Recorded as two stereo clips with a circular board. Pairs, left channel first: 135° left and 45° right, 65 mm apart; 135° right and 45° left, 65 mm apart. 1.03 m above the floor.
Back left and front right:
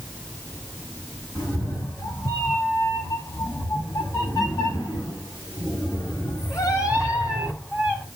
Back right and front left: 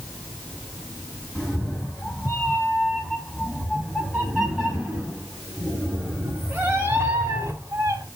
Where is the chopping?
No chopping in this recording.